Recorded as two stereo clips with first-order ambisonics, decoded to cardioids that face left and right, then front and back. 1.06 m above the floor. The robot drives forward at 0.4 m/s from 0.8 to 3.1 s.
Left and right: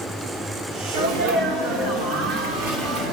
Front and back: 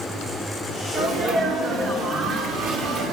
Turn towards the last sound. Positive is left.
turn(degrees=-125)